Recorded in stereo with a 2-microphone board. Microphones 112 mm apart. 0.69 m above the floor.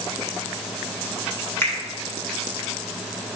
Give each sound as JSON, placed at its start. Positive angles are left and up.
{"t": 1.6, "sound": "a finger snap", "side_deg": 20, "distance_m": 1.9}